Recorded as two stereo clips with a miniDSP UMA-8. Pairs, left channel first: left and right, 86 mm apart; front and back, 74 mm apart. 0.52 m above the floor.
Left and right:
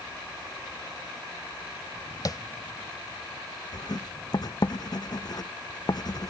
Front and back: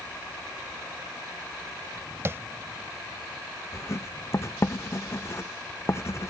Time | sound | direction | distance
2.2 | tapping | 125° left | ?
3.7 | writing | 50° left | ?